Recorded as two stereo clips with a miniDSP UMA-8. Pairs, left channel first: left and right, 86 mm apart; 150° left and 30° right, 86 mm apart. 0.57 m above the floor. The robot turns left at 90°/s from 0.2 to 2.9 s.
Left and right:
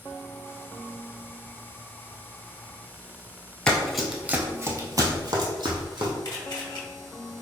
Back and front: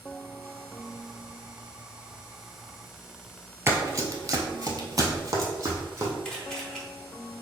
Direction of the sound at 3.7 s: 20° left.